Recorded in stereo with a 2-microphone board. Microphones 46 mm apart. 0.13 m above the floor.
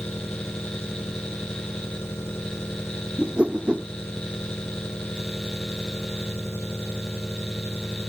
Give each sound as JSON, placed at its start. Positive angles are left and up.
{"t": 0.0, "sound": "an engine running", "side_deg": 70}
{"t": 3.2, "sound": "a whoosh", "side_deg": -25}